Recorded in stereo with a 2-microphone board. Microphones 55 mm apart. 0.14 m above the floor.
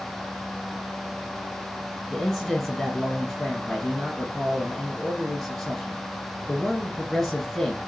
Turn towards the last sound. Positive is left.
turn(degrees=10)  # may be behind; listen again after turning